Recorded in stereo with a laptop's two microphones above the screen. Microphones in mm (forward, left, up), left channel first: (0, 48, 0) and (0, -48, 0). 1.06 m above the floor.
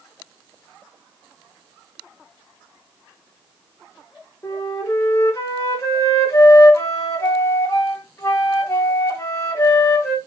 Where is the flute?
30° left (ahead or behind), 2 m.